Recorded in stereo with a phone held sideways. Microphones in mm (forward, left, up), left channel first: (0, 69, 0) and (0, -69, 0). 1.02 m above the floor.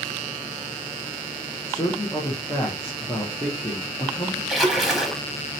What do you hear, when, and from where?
1.7 s a man speaking: 20° left (ahead or behind), 0.6 m
4.5 s a splash: centre (ahead or behind), 0.9 m